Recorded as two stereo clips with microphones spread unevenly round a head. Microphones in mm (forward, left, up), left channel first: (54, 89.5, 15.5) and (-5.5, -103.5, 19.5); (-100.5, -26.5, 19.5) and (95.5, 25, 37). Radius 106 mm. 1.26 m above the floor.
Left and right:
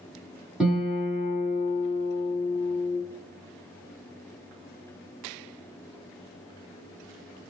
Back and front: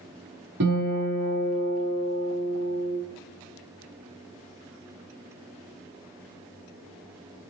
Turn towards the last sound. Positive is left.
turn(degrees=-20)